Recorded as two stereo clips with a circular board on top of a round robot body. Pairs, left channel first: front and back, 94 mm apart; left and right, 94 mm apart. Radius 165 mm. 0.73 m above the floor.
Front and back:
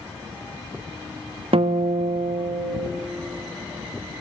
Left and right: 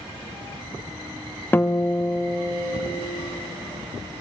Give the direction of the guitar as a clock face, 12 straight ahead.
7 o'clock.